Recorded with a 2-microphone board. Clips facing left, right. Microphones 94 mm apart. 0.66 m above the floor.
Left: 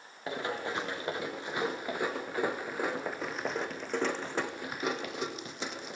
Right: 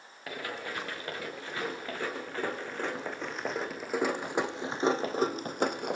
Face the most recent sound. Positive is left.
turn(degrees=-60)  # may be behind; listen again after turning